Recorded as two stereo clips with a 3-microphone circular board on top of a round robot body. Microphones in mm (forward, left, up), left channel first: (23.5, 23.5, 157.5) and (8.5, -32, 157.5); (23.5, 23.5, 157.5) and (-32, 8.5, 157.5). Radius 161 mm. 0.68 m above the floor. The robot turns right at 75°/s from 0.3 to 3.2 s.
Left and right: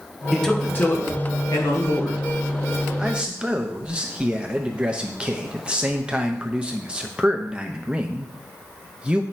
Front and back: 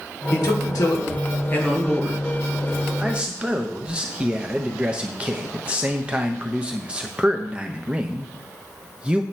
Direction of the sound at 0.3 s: 20° right.